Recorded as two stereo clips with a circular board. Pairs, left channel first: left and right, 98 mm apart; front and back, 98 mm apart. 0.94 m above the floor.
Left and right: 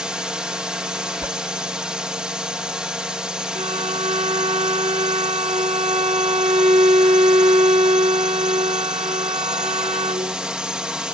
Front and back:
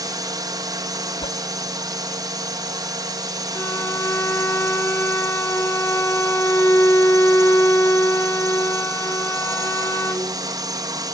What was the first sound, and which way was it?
A drone, 170° right.